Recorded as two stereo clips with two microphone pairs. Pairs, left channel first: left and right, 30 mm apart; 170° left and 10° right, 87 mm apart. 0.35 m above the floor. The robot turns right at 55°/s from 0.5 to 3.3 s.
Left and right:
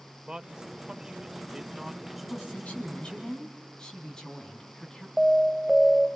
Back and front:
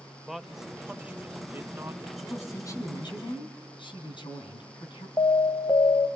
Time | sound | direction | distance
0.3 | a man speaking | 90° right | 0.9 m
2.2 | a woman speaking | 95° left | 3.5 m
5.2 | an alarm | 165° right | 1.8 m